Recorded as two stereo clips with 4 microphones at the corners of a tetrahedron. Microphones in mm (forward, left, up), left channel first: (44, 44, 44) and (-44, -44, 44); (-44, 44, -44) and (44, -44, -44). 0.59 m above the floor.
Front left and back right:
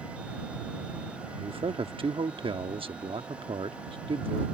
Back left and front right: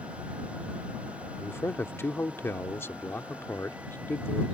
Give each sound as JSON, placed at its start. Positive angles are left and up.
{"t": 1.4, "sound": "a man speaking", "azimuth_deg": -160}